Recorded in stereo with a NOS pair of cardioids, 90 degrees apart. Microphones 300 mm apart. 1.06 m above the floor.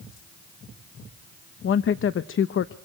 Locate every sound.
1.6 s a woman speaking: 45° left, 0.8 m